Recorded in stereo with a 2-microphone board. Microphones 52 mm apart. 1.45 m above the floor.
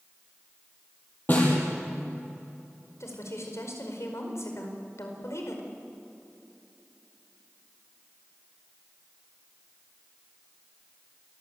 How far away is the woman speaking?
About 5 m.